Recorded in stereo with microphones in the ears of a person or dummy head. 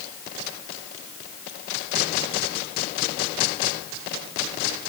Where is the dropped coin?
No dropped coin in this recording.